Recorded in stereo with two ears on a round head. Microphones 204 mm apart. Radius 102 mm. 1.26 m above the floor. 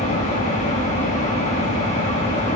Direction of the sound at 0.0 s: 30° left (ahead or behind).